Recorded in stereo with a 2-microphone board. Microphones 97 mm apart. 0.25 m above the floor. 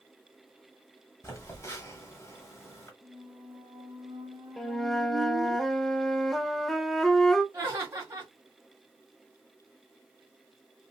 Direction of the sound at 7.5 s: 25° right (ahead or behind).